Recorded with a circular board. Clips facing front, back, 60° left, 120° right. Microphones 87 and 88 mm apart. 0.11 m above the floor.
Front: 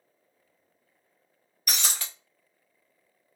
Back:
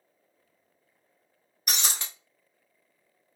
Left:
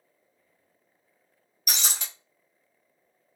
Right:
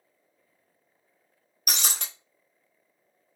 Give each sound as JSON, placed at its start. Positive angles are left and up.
{"t": 1.7, "sound": "breaking glass", "azimuth_deg": -120, "distance_m": 1.1}